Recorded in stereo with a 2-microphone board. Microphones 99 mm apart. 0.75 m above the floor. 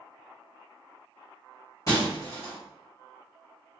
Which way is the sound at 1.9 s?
40° left (ahead or behind).